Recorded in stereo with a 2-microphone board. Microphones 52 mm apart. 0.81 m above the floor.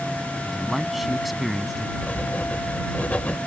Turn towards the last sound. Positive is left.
turn(degrees=30)  # may be behind; listen again after turning